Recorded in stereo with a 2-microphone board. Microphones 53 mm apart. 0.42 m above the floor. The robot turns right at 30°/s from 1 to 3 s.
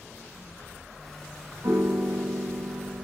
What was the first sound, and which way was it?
A piano, 85° right.